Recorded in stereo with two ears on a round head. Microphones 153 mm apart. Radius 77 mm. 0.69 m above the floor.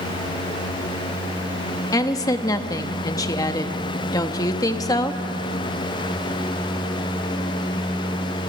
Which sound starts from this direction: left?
A woman speaking, at 1.9 s.